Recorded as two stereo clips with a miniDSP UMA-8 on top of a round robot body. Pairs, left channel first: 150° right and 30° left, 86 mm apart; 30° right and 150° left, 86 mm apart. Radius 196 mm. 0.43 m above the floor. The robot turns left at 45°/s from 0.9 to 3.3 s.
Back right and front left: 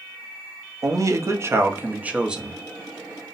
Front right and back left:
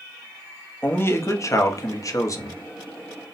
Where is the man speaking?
20° left, 0.9 m; by 2.6 s 55° right, 0.9 m.